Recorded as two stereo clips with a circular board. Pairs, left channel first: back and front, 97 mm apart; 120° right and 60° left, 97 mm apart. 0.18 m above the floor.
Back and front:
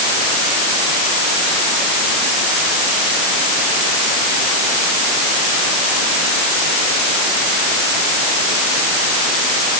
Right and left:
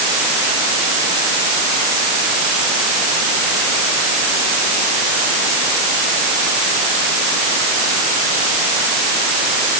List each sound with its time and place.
Only background noise.